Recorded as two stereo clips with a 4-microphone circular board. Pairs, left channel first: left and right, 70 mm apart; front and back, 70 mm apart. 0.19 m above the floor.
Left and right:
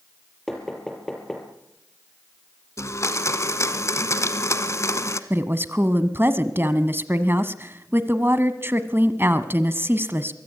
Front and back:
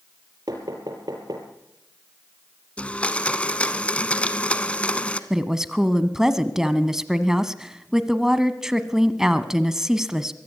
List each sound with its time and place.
0.5 s knocking: 170° left, 4 m
2.8 s a blender: 65° left, 1.2 m
5.3 s a woman speaking: 105° right, 1.3 m